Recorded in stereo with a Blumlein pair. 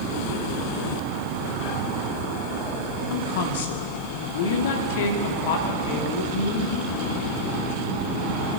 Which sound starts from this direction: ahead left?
A woman speaking, at 3.1 s.